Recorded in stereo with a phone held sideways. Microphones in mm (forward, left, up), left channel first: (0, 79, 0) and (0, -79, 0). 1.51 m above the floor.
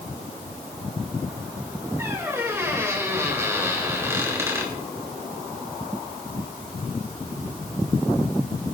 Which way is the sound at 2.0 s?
15° right (ahead or behind).